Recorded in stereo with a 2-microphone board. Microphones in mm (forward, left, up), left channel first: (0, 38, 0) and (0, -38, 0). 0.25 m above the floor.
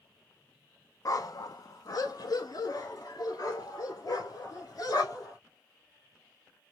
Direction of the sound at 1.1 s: 55° left (ahead or behind).